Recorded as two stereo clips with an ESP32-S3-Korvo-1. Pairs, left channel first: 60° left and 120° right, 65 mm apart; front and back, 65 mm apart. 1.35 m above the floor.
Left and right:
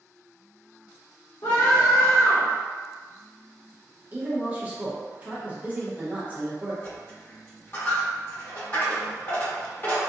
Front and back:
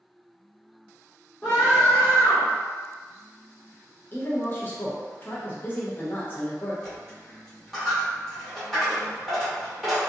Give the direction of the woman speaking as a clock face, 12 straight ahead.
2 o'clock.